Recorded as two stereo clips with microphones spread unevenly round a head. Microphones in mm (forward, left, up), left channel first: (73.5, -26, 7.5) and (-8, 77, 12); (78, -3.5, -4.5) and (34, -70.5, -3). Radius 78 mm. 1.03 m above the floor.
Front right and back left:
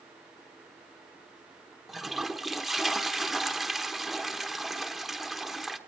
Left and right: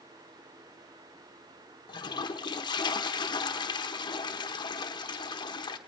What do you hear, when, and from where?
1.9 s a toilet flushing: 40° left, 1.0 m